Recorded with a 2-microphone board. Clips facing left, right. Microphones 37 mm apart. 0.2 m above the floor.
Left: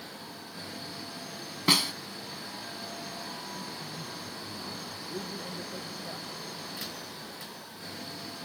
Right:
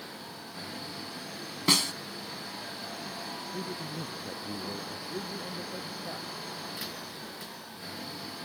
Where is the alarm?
I don't hear an alarm.